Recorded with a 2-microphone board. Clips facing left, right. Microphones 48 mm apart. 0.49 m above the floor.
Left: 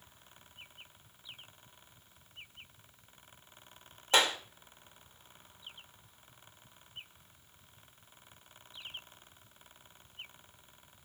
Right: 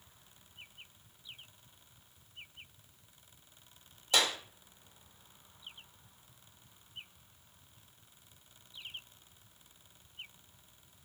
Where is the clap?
35° left (ahead or behind), 1.6 m.